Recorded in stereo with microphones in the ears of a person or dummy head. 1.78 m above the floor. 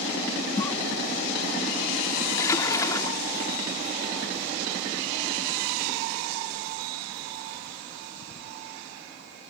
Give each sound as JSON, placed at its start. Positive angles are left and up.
{"t": 0.6, "sound": "a cough", "side_deg": 15}
{"t": 2.4, "sound": "a splash", "side_deg": 20}